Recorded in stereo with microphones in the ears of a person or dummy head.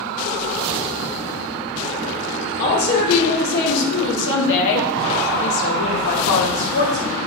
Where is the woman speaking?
50° left (ahead or behind), 3 m; by 7.2 s 30° left (ahead or behind), 1.4 m.